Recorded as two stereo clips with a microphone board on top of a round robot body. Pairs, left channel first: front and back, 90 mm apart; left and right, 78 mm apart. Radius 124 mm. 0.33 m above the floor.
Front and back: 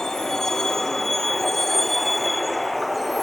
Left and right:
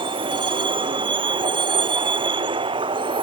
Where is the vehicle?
85° right; by 3.2 s 90° right.